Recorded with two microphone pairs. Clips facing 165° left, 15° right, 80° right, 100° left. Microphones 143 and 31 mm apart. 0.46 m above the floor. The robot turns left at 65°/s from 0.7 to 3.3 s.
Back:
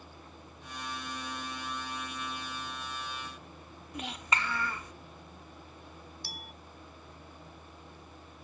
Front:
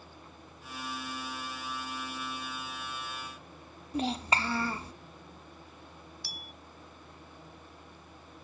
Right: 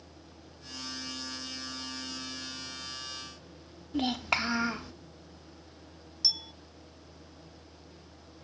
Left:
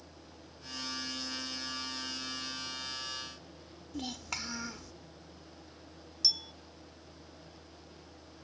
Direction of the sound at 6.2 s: 160° right.